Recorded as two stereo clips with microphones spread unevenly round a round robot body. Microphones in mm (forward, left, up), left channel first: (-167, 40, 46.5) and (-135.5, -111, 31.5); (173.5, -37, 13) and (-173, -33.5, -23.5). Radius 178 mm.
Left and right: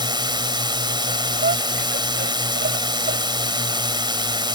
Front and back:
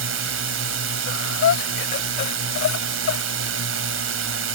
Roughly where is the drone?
Behind right.